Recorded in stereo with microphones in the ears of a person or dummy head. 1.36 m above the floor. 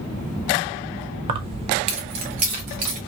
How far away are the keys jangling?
About 0.6 m.